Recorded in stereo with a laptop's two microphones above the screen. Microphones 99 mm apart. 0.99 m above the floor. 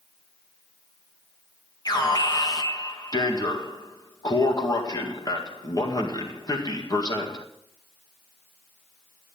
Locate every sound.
1.9 s an alarm: 40° left (ahead or behind), 1.8 m